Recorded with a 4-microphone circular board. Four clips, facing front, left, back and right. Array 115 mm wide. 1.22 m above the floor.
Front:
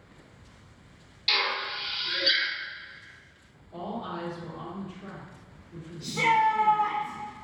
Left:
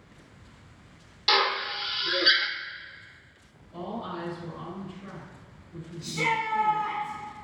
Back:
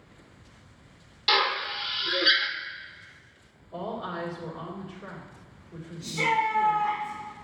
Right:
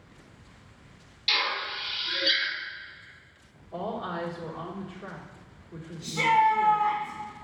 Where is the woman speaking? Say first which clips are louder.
Right 2 dB, back 1 dB; 105° right, 3 m.